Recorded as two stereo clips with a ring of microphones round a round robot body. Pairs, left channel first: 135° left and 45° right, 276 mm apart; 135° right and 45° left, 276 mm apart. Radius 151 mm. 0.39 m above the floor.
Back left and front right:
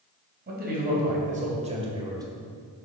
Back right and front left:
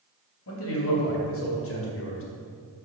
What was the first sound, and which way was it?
A man speaking, 100° right.